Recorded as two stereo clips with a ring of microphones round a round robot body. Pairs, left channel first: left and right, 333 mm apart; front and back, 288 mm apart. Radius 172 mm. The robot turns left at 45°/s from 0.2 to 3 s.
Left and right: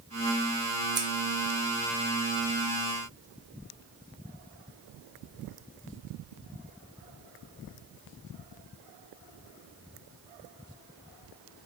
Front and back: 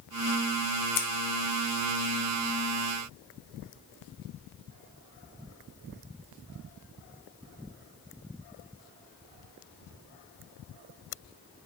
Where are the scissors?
10° right, 0.6 m; by 1.1 s 15° right, 0.6 m.